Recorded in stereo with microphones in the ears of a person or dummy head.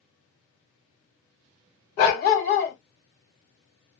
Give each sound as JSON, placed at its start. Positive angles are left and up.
{"t": 2.0, "sound": "a dog barking", "side_deg": 45, "distance_m": 1.4}